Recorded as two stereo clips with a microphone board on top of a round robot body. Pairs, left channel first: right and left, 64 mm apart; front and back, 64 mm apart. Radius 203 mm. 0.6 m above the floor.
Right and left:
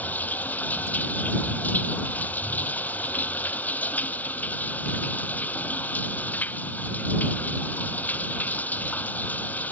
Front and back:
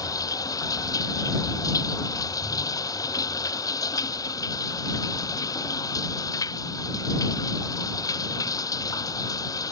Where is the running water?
25° right.